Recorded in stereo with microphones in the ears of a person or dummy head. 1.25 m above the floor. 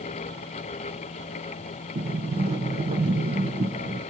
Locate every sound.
1.9 s a sliding door: 30° right (ahead or behind), 1.1 m